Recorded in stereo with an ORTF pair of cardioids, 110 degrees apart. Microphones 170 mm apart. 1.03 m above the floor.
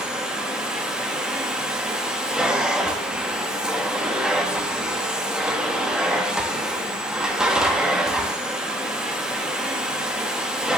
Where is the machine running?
5° right, 0.9 m.